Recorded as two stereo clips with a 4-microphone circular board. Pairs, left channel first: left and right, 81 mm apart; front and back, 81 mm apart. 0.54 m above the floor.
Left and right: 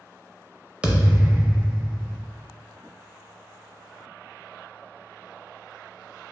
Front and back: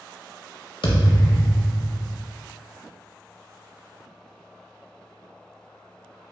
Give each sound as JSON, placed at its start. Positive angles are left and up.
{"t": 0.8, "sound": "a thud", "azimuth_deg": -10, "distance_m": 0.6}